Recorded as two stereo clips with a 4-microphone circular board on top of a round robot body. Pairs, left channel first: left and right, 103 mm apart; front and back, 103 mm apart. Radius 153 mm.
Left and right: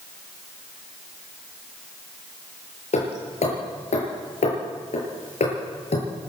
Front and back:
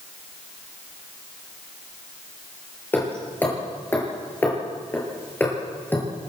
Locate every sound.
2.9 s hammering: 75° left, 7 m